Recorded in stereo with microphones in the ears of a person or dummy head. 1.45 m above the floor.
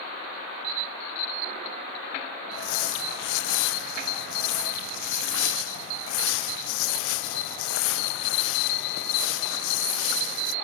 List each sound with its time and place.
2.5 s crumpling: 80° left, 1.0 m